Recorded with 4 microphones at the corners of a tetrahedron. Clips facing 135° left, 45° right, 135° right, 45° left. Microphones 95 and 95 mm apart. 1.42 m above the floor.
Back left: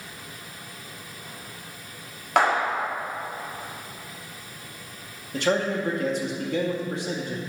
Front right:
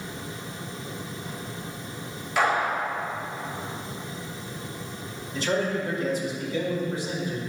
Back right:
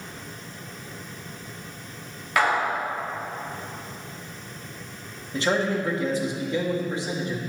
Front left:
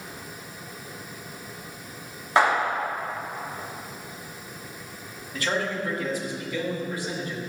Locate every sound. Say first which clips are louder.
2.4 s a clap: back left 2 dB, front left 2 dB; 105° left, 2.5 m
5.3 s a man speaking: back left 2 dB, back right 4 dB; 160° left, 2.5 m